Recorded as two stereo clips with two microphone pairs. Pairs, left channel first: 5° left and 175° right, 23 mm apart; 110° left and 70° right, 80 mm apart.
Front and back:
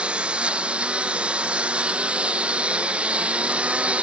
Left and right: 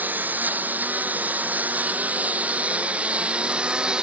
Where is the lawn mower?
140° right; by 4.0 s 150° right.